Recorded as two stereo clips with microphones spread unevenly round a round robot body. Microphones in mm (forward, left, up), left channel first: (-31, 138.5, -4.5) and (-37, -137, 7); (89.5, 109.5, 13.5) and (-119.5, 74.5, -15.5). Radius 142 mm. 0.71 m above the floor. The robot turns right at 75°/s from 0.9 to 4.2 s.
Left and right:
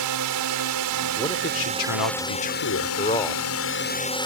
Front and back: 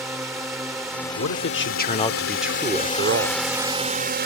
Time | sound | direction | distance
0.0 | a drone | 85° right | ?
1.2 | a man speaking | 10° left | ?